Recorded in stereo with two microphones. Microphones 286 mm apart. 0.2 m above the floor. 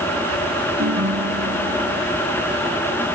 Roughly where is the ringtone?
Right.